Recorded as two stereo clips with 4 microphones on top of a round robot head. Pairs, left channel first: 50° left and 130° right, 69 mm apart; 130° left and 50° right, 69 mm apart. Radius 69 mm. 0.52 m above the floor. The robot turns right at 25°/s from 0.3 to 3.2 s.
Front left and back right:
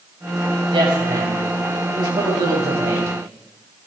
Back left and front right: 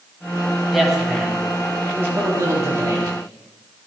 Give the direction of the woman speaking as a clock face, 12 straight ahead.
5 o'clock.